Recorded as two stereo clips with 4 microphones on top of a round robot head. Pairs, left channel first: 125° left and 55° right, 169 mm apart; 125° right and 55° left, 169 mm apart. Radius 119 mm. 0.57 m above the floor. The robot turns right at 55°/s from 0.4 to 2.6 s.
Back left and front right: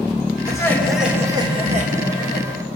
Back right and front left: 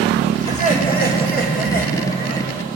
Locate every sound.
0.5 s laughter: 170° right, 2.5 m; by 2.5 s 60° right, 2.5 m